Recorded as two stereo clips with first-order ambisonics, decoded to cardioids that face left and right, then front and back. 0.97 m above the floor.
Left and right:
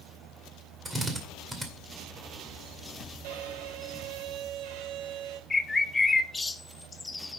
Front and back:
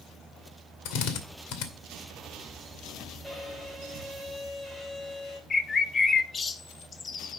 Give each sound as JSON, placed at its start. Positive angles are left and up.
{"t": 0.8, "sound": "a drill", "azimuth_deg": -10, "distance_m": 2.0}
{"t": 3.2, "sound": "a violin", "azimuth_deg": -85, "distance_m": 2.0}
{"t": 5.5, "sound": "a bird", "azimuth_deg": 30, "distance_m": 0.6}